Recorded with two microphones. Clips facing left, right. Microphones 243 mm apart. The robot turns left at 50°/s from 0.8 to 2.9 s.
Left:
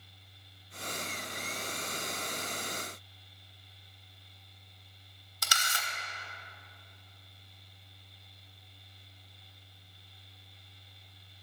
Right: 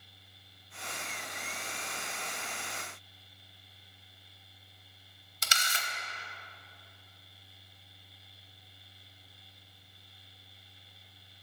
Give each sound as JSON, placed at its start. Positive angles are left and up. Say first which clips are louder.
{"t": 5.4, "sound": "a camera shutter", "louder": "even", "side_deg": -25, "distance_m": 1.0}